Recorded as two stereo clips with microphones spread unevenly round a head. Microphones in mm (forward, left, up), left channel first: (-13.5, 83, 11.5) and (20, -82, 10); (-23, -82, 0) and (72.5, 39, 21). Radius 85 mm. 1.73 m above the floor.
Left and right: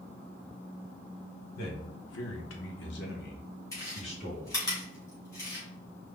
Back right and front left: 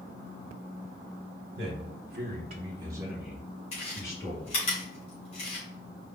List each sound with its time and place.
1.6 s a man speaking: 70° left, 1.6 m; by 4.6 s 165° left, 2.5 m
3.7 s chewing: 175° left, 2.5 m